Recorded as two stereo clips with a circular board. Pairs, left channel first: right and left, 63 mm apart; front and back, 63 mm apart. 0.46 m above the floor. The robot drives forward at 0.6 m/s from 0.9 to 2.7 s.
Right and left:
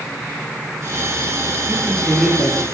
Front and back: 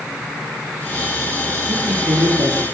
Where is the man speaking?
170° left, 8 m.